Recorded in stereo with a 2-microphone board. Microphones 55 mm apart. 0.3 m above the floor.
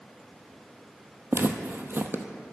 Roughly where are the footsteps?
Right.